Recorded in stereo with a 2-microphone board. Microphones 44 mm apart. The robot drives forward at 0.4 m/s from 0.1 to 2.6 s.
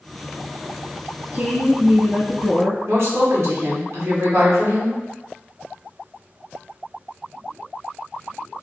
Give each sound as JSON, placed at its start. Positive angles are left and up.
{"t": 1.3, "sound": "a woman speaking", "side_deg": -55, "distance_m": 1.6}
{"t": 2.9, "sound": "a woman speaking", "side_deg": -65, "distance_m": 1.2}